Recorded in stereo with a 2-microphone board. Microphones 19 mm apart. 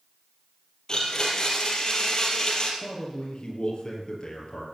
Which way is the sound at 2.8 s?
45° left (ahead or behind).